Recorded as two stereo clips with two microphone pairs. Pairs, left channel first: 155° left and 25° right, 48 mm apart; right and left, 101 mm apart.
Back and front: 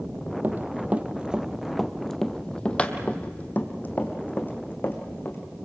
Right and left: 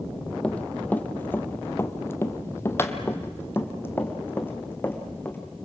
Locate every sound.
0.4 s running footsteps: 15° right, 1.2 m; by 5.4 s 160° right, 3 m